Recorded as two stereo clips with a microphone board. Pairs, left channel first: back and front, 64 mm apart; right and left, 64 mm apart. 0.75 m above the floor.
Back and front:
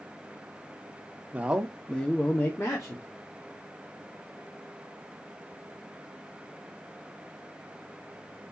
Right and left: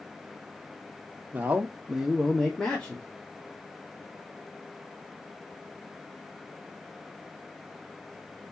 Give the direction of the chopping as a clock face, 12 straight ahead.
No chopping in this recording.